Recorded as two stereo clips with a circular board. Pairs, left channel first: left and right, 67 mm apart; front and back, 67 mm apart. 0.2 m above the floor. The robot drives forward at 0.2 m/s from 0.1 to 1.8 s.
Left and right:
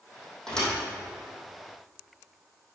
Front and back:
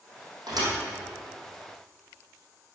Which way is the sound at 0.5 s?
170° left.